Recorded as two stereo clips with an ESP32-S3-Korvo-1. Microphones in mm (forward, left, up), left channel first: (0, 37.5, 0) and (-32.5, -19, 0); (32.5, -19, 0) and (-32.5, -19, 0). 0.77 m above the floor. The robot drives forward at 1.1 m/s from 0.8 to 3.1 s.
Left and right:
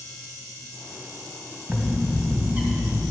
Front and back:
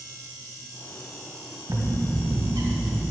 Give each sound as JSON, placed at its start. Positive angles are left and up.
{"t": 1.7, "sound": "a bird", "azimuth_deg": 165, "distance_m": 2.0}